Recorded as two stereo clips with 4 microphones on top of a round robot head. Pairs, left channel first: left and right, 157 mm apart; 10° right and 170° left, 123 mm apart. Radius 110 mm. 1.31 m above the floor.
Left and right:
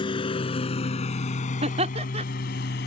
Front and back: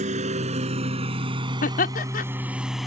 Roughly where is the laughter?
Ahead right.